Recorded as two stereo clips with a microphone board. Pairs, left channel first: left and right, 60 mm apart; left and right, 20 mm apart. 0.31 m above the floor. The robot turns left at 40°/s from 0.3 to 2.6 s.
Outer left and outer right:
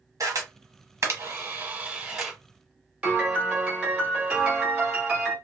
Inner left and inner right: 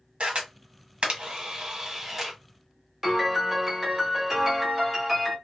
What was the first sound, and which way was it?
A camera shutter, 65° right (ahead or behind).